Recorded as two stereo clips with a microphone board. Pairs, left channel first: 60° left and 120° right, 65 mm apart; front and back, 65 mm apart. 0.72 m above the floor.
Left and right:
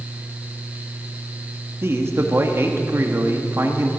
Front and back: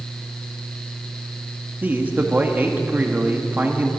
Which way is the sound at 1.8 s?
135° right.